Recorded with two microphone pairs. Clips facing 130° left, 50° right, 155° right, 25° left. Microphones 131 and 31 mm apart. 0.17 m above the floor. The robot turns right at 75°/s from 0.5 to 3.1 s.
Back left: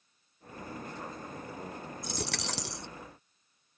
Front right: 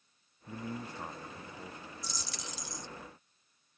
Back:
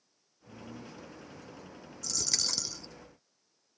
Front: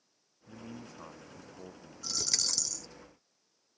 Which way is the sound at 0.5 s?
30° right.